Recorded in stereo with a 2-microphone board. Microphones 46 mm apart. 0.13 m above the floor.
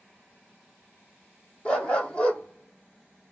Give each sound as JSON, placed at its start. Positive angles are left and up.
{"t": 1.6, "sound": "a dog barking", "side_deg": 20, "distance_m": 1.5}